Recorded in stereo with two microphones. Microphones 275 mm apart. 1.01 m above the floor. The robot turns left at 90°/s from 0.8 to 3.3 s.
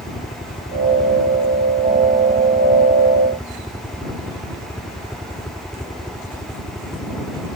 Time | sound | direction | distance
0.0 | a helicopter | 35° left | ?